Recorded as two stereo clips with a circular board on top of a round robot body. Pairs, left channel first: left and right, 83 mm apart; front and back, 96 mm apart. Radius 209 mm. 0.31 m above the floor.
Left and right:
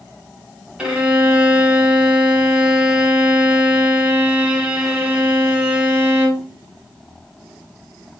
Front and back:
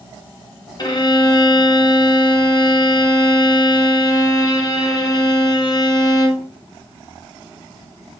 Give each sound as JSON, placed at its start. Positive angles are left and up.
{"t": 0.8, "sound": "a violin", "azimuth_deg": -15, "distance_m": 1.4}